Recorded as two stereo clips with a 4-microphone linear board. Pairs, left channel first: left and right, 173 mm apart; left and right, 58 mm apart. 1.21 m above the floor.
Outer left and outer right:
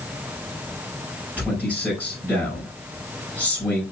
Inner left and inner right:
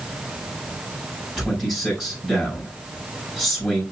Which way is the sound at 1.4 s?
10° right (ahead or behind).